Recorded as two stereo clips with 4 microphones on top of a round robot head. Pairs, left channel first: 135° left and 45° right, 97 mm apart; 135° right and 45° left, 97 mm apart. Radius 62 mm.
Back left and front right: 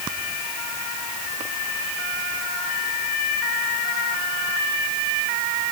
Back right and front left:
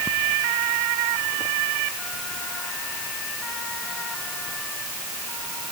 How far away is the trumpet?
No trumpet in this recording.